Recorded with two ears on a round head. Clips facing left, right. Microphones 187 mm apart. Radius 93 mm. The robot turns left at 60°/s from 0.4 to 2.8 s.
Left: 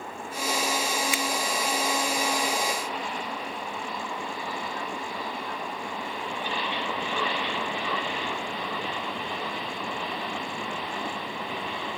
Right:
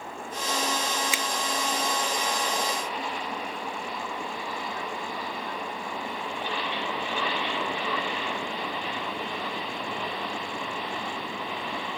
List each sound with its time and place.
1.1 s a finger snap: 65° right (ahead or behind); by 1.2 s 60° right (ahead or behind)